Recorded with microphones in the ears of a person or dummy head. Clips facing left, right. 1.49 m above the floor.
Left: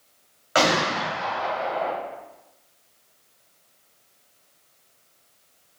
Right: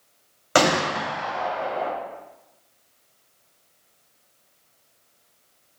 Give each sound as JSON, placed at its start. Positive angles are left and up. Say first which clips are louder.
{"t": 0.6, "sound": "a gunshot", "louder": "right 2 dB", "side_deg": -60, "distance_m": 1.1}